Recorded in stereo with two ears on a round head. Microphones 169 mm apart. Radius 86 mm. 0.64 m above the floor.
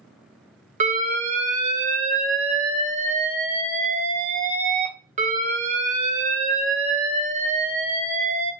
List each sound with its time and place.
0.8 s an alarm: 40° right (ahead or behind), 0.5 m